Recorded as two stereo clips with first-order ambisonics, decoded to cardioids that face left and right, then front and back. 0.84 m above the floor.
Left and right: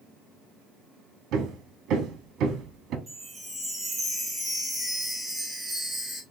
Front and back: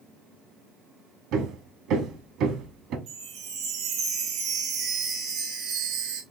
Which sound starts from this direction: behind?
A chime, at 3.1 s.